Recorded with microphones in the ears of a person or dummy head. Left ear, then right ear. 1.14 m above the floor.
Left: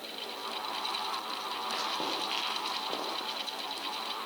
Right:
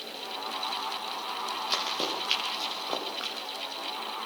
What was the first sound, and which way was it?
Running footsteps, 85° right.